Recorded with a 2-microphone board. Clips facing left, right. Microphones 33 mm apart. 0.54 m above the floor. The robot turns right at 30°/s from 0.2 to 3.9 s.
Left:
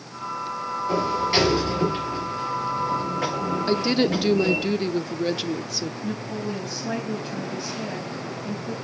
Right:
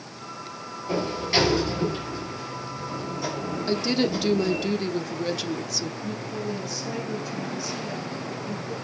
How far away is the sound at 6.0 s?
About 3.5 m.